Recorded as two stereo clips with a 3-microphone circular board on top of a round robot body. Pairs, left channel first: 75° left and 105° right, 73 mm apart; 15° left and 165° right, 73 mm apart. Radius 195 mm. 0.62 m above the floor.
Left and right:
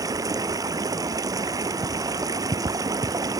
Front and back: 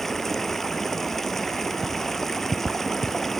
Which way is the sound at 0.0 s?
70° right.